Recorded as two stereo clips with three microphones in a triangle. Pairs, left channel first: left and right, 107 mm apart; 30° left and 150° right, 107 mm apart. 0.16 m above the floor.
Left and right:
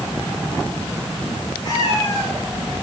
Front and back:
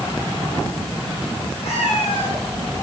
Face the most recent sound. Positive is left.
turn(degrees=40)